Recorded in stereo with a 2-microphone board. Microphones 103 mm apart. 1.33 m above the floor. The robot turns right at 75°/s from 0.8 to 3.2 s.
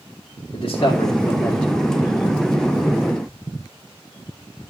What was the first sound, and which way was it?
A man speaking, 130° left.